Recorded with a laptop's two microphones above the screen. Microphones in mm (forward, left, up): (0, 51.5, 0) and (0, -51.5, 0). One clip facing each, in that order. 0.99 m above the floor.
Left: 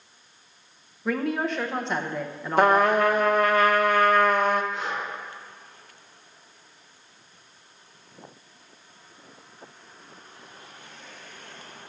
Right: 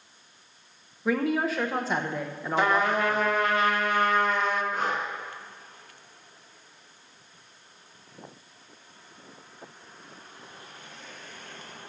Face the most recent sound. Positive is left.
turn(degrees=-45)  # may be behind; listen again after turning